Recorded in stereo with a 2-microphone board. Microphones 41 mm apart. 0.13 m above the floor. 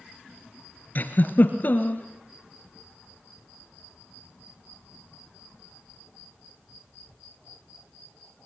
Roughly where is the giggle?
Left.